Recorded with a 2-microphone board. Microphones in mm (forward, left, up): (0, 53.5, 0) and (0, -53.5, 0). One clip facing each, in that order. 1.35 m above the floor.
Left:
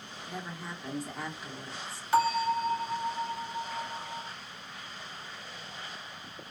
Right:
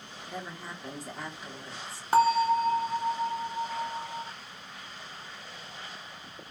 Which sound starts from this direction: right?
A bell, at 2.1 s.